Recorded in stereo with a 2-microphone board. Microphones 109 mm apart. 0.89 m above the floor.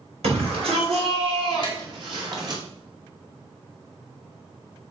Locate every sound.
0.2 s a shout: 65° right (ahead or behind), 4 m; by 2.6 s 40° right (ahead or behind), 2.5 m
1.6 s tapping: 40° left (ahead or behind), 2.5 m